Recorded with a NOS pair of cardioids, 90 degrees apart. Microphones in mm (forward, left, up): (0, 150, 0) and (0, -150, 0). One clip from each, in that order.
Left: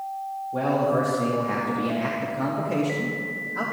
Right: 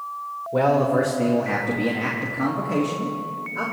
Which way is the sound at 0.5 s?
50° right.